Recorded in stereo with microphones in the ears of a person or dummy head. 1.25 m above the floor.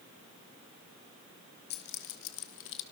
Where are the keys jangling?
55° left (ahead or behind), 1.5 m; by 2.8 s 65° left (ahead or behind), 1.5 m.